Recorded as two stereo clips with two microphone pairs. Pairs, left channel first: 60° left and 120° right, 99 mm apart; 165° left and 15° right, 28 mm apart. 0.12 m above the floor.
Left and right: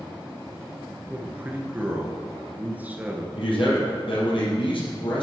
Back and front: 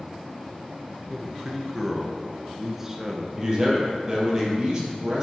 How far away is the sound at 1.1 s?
About 1.2 m.